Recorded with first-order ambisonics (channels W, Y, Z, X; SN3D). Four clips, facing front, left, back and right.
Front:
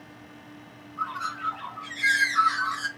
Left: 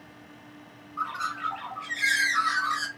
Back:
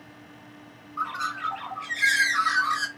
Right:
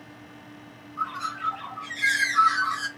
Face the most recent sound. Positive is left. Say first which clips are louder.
# even, back 2 dB
turn(degrees=165)